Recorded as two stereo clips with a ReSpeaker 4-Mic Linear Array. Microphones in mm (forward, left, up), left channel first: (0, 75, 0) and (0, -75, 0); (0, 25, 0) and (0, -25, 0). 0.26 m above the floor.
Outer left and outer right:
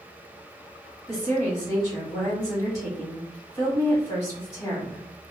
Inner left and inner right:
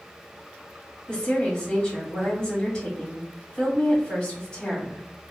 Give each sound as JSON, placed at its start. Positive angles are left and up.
{"t": 1.1, "sound": "a woman speaking", "side_deg": 25, "distance_m": 1.4}